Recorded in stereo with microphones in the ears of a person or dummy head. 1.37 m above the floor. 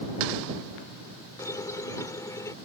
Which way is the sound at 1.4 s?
20° left (ahead or behind).